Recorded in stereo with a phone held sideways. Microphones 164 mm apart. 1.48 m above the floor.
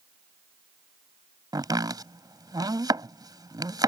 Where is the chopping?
25° right (ahead or behind).